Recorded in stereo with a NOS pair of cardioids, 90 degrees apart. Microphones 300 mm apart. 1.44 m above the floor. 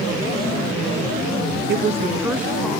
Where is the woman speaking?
40° right, 0.6 m; by 2.8 s straight ahead, 1.4 m.